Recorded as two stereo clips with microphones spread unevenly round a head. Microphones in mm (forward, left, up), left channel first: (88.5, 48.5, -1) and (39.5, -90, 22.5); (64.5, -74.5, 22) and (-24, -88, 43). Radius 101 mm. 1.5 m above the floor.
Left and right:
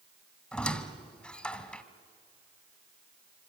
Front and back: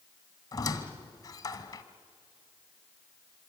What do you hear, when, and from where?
0.5 s a squeak: 25° right, 1.4 m